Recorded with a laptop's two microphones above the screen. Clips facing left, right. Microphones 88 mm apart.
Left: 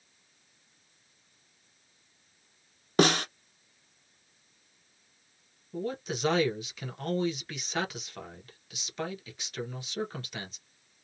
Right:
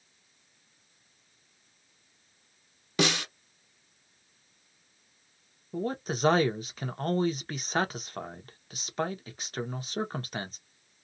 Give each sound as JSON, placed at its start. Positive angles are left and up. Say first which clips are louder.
{"t": 3.0, "sound": "a snare drum", "louder": "left 4 dB", "side_deg": 45, "distance_m": 0.9}
{"t": 5.7, "sound": "a man speaking", "louder": "right 2 dB", "side_deg": -40, "distance_m": 0.9}